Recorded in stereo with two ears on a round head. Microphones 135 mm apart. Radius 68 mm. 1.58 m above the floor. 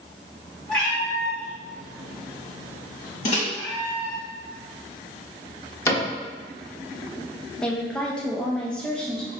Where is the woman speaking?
5° left (ahead or behind), 0.5 m.